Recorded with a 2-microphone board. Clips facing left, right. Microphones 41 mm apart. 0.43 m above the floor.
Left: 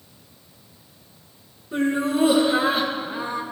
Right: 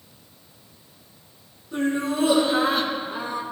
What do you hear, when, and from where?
1.7 s laughter: 20° left (ahead or behind), 5.5 m; by 3.4 s centre (ahead or behind), 4 m